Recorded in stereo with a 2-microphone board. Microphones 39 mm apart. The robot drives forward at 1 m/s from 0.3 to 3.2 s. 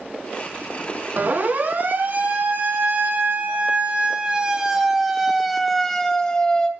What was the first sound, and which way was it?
A siren, 45° right (ahead or behind).